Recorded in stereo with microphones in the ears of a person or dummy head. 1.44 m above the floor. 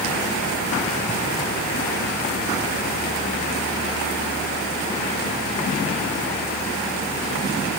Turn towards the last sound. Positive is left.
No sound to turn to.